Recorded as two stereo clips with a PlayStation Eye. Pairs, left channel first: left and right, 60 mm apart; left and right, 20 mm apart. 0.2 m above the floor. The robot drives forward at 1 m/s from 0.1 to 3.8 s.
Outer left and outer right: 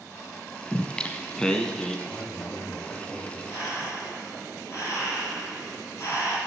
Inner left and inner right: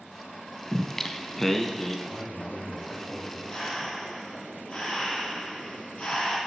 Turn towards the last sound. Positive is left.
turn(degrees=60)  # may be behind; listen again after turning